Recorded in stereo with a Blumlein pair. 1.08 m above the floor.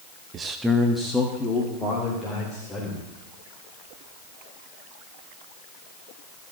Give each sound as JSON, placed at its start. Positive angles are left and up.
{"t": 0.3, "sound": "a man speaking", "azimuth_deg": -25, "distance_m": 0.7}